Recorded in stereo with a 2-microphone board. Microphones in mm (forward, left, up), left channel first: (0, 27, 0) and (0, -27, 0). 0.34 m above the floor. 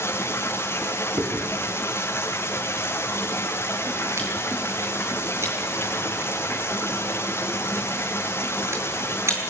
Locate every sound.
0.0 s running water: 45° left (ahead or behind), 4 m
1.2 s chewing: 55° right (ahead or behind), 6.5 m